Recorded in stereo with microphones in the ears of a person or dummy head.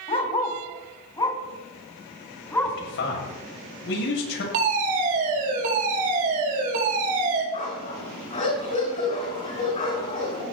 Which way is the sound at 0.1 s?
35° left (ahead or behind).